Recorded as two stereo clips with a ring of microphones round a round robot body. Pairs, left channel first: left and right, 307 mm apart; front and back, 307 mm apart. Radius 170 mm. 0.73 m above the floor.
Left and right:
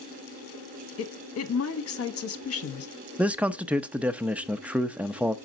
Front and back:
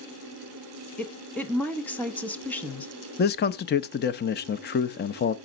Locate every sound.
1.0 s a woman speaking: 85° left, 1.2 m
3.2 s a man speaking: 10° right, 0.6 m